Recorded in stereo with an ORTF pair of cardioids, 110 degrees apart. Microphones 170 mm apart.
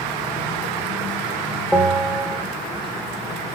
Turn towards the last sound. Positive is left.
turn(degrees=0)